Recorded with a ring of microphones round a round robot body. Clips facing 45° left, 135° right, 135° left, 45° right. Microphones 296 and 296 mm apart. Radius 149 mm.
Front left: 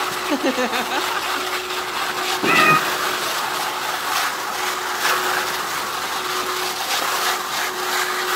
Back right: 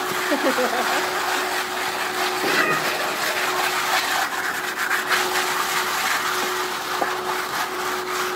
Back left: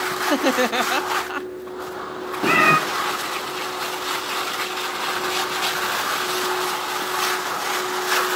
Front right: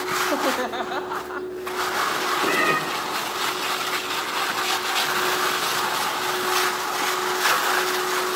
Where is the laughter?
110° left, 1.1 m.